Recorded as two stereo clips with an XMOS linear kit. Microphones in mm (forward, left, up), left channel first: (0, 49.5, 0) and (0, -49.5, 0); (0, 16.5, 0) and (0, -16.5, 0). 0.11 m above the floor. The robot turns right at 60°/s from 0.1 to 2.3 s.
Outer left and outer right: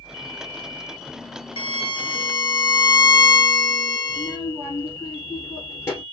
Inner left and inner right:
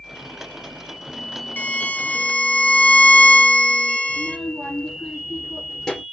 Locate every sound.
1.6 s a violin: 85° left, 0.7 m; by 4.4 s 130° left, 0.7 m
4.1 s a child speaking: 25° left (ahead or behind), 1.9 m